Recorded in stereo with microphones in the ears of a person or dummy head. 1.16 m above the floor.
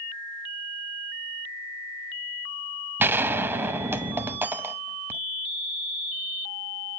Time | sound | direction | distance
3.0 | a gunshot | 10° right (ahead or behind) | 0.8 m